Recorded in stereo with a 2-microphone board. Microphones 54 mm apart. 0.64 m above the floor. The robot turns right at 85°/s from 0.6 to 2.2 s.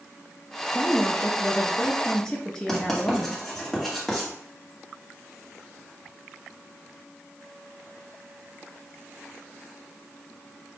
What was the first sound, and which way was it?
A woman speaking, 5° left (ahead or behind).